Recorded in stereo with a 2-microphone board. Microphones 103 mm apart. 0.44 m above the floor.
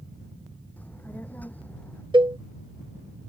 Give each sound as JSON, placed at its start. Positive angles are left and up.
{"t": 0.8, "sound": "a child speaking", "side_deg": 15}
{"t": 2.1, "sound": "a cowbell", "side_deg": -50}